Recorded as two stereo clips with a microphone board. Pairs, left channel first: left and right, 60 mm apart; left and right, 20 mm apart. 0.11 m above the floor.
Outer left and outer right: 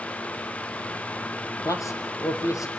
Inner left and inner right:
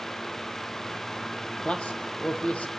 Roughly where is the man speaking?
Left.